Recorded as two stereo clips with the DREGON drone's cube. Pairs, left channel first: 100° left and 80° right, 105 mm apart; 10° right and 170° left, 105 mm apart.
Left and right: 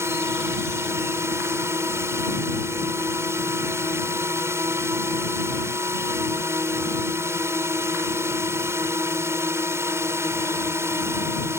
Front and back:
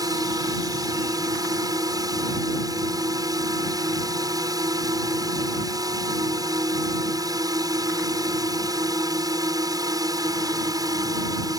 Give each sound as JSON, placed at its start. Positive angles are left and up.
{"t": 0.0, "sound": "a drone", "azimuth_deg": -140}